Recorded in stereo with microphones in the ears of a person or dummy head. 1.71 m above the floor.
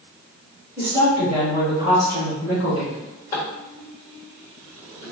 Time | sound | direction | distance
0.8 | a woman speaking | 5° right (ahead or behind) | 1.9 m
2.9 | a drawer | 20° left (ahead or behind) | 1.4 m